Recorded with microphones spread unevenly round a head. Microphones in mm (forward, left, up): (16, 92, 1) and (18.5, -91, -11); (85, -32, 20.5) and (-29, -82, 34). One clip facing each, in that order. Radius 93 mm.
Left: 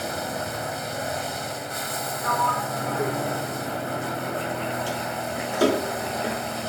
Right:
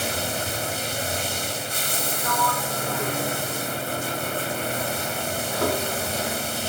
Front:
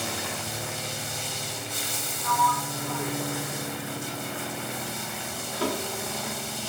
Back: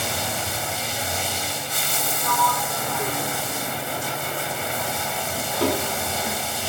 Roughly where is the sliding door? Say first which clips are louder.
Right 1 dB, back 2 dB; behind left.